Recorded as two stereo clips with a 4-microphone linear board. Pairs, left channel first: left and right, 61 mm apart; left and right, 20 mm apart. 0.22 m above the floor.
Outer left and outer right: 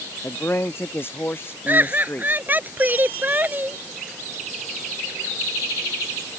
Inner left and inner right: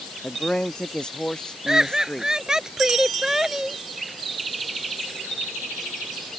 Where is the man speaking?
40° left (ahead or behind); by 2.7 s 35° left (ahead or behind).